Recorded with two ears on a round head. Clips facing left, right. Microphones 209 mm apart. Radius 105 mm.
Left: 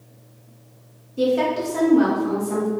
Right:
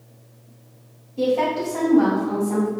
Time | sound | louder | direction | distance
1.2 | a woman speaking | left 1 dB | 20° left (ahead or behind) | 1.6 m